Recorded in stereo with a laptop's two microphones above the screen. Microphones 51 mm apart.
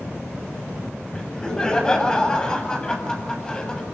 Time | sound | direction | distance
1.1 | laughter | 15° left (ahead or behind) | 7 m